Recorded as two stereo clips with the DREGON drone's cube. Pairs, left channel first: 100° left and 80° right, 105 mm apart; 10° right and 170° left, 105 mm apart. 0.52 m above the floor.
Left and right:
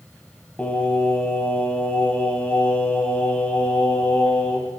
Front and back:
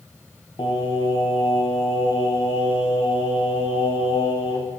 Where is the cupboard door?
No cupboard door in this recording.